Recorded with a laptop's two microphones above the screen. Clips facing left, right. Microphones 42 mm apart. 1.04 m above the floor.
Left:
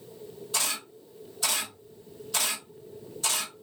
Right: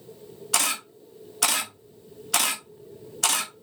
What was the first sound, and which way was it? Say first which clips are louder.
A camera shutter: right 5 dB; 85° right.